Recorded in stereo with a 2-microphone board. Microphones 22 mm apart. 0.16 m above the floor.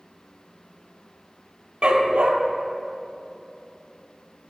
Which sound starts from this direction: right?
A dog barking, at 1.8 s.